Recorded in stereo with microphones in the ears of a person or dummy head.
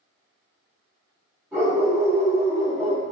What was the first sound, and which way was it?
A dog barking, 5° right (ahead or behind).